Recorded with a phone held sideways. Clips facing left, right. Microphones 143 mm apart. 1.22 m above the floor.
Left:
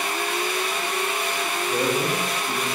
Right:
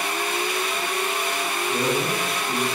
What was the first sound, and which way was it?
A man speaking, 5° left (ahead or behind).